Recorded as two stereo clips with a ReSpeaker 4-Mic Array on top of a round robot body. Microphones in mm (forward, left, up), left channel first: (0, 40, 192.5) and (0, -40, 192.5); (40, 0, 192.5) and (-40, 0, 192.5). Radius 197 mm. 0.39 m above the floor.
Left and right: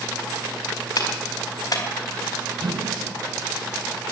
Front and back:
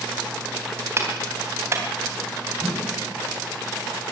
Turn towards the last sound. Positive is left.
turn(degrees=-70)